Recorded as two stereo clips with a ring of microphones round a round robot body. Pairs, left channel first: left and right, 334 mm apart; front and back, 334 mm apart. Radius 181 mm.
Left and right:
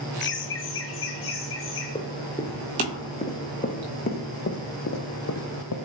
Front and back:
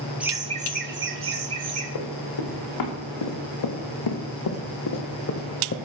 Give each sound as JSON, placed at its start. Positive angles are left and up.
{"t": 0.2, "sound": "laughter", "azimuth_deg": 95, "distance_m": 0.7}
{"t": 1.9, "sound": "running footsteps", "azimuth_deg": 15, "distance_m": 4.0}